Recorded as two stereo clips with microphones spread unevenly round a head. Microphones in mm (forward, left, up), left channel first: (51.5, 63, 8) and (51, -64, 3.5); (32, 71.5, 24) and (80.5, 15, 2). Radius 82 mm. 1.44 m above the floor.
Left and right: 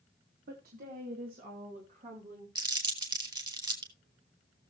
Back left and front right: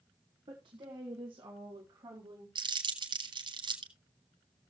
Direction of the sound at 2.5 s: 35° right.